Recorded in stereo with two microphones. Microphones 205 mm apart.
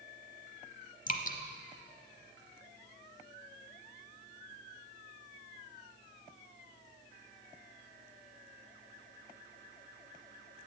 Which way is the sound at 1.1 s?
45° left (ahead or behind).